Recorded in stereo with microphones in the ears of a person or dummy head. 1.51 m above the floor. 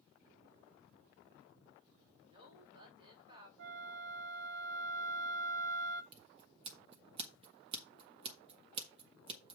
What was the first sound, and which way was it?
A woman speaking, 30° right (ahead or behind).